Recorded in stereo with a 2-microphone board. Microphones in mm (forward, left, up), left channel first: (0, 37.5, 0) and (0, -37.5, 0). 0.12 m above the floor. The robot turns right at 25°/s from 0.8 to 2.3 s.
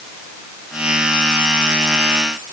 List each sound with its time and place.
Only background noise.